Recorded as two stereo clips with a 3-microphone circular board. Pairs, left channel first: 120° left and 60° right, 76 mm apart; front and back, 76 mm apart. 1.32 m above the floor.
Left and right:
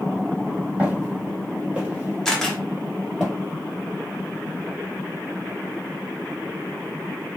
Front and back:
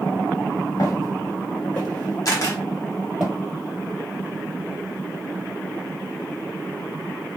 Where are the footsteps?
Straight ahead, 1.8 m; by 3.2 s 130° right, 1.3 m.